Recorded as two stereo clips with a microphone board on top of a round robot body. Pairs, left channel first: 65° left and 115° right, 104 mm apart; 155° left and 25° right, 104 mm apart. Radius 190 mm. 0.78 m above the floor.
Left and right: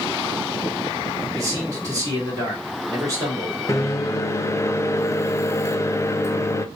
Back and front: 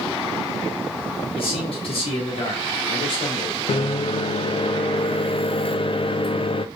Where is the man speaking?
170° right, 2.5 m.